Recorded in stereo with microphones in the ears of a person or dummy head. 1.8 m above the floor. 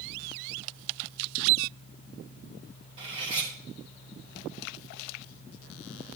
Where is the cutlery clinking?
35° right (ahead or behind), 6.5 m.